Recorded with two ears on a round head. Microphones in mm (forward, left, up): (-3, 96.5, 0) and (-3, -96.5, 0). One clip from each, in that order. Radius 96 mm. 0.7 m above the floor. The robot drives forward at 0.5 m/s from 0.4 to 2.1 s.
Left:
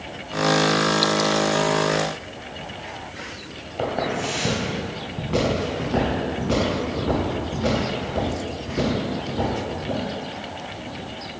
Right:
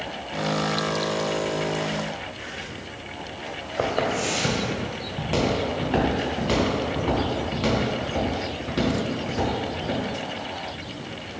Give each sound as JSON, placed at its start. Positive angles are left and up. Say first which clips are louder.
{"t": 3.8, "sound": "footsteps", "louder": "right 1 dB", "side_deg": -70, "distance_m": 1.8}